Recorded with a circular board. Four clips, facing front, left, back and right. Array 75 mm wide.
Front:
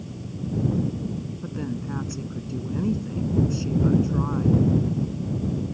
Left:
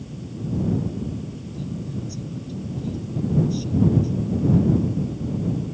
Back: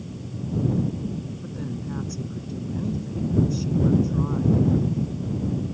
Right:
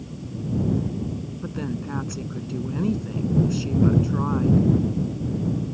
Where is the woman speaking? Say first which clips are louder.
Right 3 dB, front 2 dB; 70° right.